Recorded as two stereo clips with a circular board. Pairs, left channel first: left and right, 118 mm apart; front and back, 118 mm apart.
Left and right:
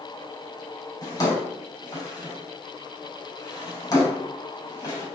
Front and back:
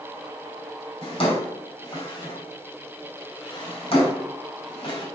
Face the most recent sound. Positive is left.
turn(degrees=35)